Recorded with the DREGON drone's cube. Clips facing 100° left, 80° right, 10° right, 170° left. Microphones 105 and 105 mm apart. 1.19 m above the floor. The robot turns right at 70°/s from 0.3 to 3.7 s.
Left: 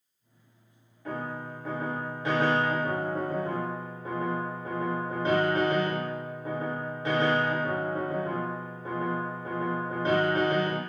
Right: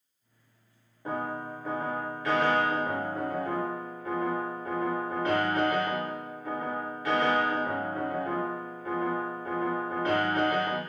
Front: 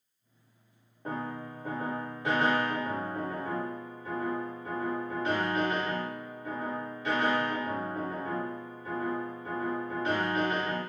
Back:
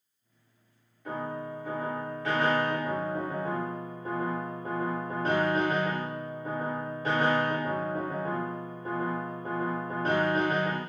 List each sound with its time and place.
1.1 s a piano: 35° right, 0.8 m; by 10.8 s 150° left, 0.8 m